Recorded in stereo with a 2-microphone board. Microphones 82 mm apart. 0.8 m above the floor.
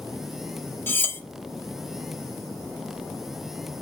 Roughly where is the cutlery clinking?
Left.